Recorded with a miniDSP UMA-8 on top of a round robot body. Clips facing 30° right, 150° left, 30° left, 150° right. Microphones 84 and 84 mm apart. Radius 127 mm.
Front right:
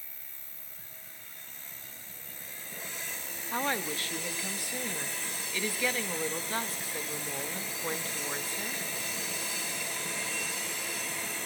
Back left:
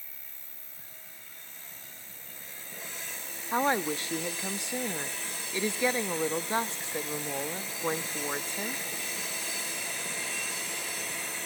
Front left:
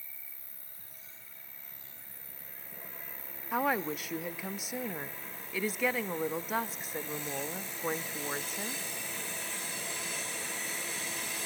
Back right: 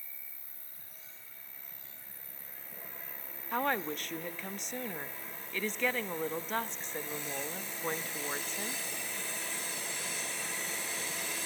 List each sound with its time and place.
0.0 s an insect: 80° right, 3 m
3.5 s a woman speaking: 110° left, 0.7 m